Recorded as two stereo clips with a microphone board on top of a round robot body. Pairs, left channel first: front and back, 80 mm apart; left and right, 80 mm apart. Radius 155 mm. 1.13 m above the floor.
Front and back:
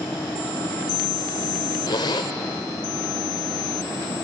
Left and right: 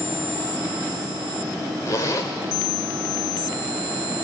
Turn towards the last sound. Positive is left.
turn(degrees=40)